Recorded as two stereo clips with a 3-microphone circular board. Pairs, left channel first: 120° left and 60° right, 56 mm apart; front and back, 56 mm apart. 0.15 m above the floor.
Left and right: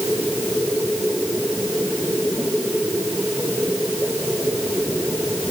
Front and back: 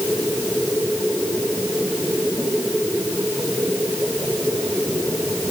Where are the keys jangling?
No keys jangling in this recording.